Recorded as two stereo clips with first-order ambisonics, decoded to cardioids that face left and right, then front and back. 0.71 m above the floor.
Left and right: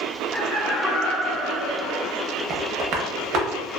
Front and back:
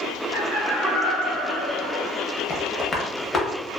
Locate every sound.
0.3 s laughter: 135° right, 1.0 m; by 2.2 s 95° right, 1.6 m
2.5 s tapping: 65° right, 0.6 m